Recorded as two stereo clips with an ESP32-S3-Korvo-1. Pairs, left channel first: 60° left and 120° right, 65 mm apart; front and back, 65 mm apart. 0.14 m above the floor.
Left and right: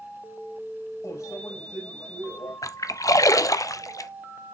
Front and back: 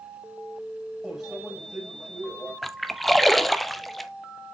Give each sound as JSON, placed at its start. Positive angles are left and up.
{"t": 1.0, "sound": "a microwave", "azimuth_deg": 90, "distance_m": 6.0}
{"t": 2.6, "sound": "a splash", "azimuth_deg": 90, "distance_m": 0.6}